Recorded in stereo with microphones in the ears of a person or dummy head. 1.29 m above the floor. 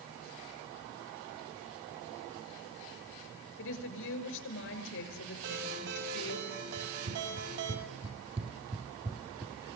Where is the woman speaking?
70° left (ahead or behind), 6 m.